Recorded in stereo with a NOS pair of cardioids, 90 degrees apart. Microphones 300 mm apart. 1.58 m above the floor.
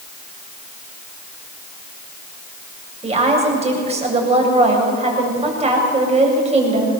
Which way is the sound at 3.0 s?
20° right.